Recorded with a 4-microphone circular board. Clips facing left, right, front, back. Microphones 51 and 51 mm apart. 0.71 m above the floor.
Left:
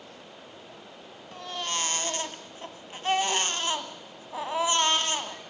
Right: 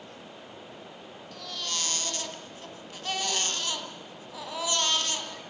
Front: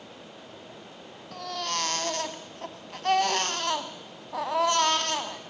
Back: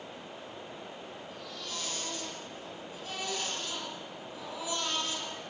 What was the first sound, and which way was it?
A baby crying, 30° left.